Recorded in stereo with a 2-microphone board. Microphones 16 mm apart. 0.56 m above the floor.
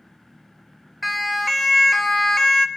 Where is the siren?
Centre (ahead or behind), 2 m; by 2.7 s 30° left (ahead or behind), 1.4 m.